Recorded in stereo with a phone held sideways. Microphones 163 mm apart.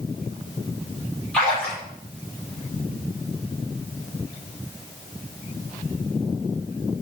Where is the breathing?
I don't hear breathing.